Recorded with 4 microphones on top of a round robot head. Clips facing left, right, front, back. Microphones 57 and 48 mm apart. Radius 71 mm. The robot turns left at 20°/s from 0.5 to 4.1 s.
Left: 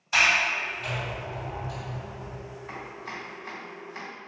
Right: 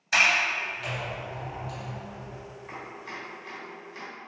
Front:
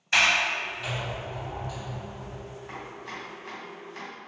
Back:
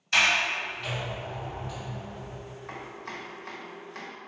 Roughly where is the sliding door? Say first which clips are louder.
Even, front 1 dB; right.